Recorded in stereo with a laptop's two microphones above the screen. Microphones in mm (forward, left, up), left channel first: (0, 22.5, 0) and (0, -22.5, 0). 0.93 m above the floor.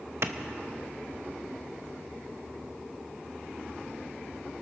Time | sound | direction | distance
0.2 | a clap | 65° right (ahead or behind) | 0.7 m